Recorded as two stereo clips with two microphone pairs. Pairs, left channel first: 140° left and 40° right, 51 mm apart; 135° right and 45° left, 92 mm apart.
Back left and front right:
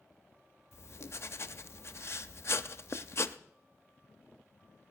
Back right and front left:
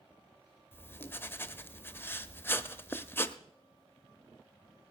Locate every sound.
0.7 s writing: 165° left, 0.6 m